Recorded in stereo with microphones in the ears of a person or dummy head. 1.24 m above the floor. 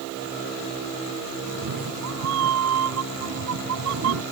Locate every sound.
1.5 s a cat meowing: 80° right